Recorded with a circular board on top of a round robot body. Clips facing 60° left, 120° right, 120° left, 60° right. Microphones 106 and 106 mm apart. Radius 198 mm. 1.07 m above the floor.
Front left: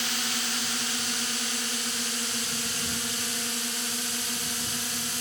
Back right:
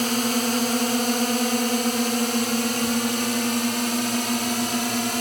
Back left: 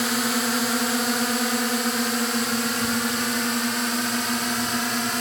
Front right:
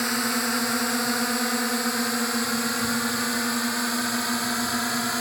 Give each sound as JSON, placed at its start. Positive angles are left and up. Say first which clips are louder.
{"t": 0.0, "sound": "a drone", "louder": "back right 12 dB, back left 2 dB", "azimuth_deg": -155}